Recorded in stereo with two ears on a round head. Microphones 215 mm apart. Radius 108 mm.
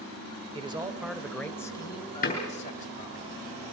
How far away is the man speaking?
About 1.6 m.